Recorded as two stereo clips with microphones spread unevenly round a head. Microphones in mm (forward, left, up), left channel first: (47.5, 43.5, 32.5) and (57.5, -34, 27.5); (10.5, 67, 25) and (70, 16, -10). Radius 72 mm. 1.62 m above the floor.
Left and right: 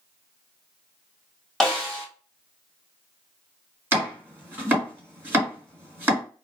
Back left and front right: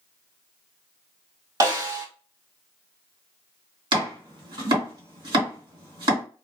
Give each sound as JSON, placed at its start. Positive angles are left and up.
{"t": 1.6, "sound": "a snare drum", "azimuth_deg": 15, "distance_m": 1.7}
{"t": 3.9, "sound": "chopping", "azimuth_deg": -30, "distance_m": 1.8}